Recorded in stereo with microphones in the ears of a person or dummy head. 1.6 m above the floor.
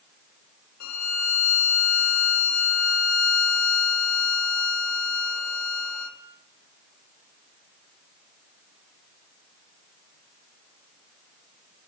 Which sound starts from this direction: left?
A violin, at 0.8 s.